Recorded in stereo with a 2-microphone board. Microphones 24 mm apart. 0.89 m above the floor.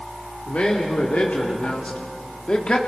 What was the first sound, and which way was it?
A man speaking, 75° left (ahead or behind).